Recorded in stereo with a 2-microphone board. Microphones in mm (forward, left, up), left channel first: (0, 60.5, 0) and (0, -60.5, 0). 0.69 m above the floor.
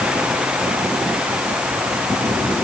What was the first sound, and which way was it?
Only background noise.